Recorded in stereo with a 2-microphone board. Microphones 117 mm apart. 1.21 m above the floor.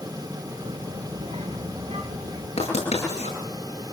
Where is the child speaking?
60° right (ahead or behind), 3 m.